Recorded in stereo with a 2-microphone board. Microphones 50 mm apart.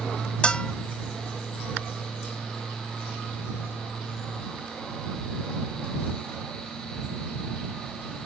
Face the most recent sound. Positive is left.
turn(degrees=20)  # may be behind; listen again after turning